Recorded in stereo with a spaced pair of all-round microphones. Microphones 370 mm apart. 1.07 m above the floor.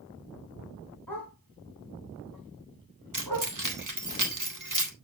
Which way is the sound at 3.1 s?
60° right (ahead or behind).